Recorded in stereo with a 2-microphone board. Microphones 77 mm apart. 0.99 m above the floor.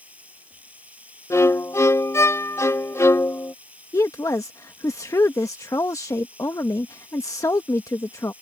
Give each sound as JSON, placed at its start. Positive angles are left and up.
{"t": 0.0, "sound": "running water", "side_deg": -20}
{"t": 1.3, "sound": "a violin", "side_deg": 40}
{"t": 3.9, "sound": "a woman speaking", "side_deg": 45}